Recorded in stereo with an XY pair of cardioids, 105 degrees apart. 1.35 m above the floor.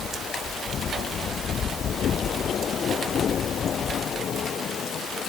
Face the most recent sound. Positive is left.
No sound to turn to.